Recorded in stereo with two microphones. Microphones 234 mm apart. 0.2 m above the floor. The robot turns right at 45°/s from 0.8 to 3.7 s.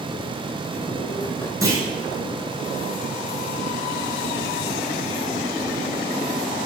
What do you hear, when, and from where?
1.6 s a clunk: 15° right (ahead or behind), 2.5 m; by 1.8 s 20° right (ahead or behind), 2.5 m